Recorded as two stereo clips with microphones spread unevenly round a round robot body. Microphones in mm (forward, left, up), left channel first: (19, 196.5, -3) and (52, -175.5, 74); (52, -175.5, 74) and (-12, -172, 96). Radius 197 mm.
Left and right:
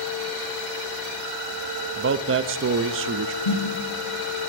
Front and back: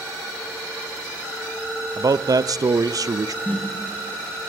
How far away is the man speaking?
About 0.5 m.